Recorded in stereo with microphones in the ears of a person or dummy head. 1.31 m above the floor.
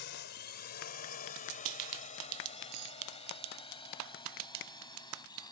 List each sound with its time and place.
0.0 s a drone: 55° left (ahead or behind); by 5.5 s 20° left (ahead or behind)
2.7 s cutlery clinking: 85° right